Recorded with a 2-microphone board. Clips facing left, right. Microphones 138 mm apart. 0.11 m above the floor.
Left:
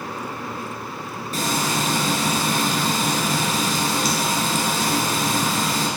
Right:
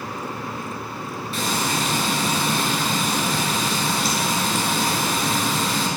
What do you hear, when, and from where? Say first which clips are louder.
1.3 s frying: left 1 dB; 45° left (ahead or behind), 1.4 m